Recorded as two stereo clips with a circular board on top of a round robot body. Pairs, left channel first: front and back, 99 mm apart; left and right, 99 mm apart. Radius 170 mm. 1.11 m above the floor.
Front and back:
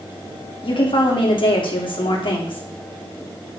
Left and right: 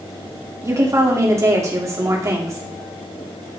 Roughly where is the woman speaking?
Ahead right.